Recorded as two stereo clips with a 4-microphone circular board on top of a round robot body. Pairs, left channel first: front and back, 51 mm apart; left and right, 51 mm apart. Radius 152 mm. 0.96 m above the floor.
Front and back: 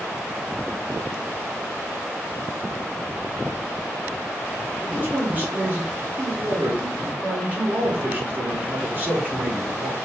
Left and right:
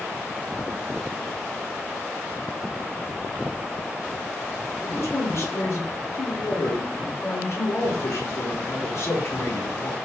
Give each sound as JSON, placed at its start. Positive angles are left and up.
{"t": 4.8, "sound": "a man speaking", "azimuth_deg": 120, "distance_m": 3.0}